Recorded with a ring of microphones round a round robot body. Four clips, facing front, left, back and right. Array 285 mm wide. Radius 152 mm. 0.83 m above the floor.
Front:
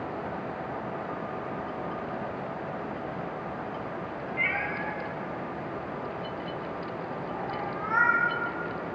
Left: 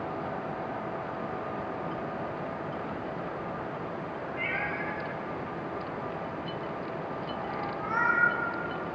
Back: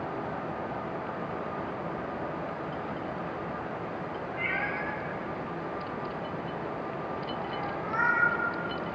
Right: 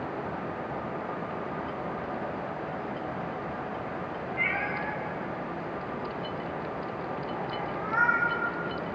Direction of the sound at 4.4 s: 20° right.